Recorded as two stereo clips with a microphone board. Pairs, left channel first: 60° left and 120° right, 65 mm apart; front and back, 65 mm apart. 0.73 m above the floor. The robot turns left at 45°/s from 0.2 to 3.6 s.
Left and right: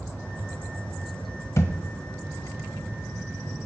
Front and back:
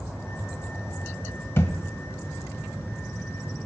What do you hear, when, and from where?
1.6 s a thud: 35° left, 0.7 m; by 1.8 s 25° left, 0.7 m